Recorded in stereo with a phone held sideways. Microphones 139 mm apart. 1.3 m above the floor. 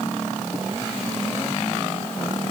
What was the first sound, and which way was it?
Only background noise.